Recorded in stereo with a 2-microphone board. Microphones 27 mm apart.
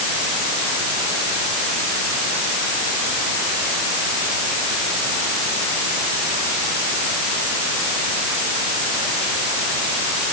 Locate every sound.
Only background noise.